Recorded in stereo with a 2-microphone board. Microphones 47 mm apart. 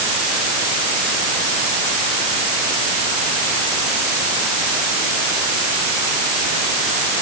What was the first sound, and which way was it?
Only background noise.